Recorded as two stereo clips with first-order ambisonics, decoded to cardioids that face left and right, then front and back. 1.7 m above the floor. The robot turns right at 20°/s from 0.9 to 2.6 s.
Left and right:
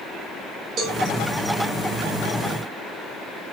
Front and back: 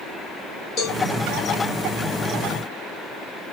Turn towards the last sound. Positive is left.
turn(degrees=-10)